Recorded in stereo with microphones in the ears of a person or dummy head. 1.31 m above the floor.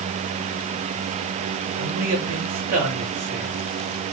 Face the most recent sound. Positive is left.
turn(degrees=-40)  # may be behind; listen again after turning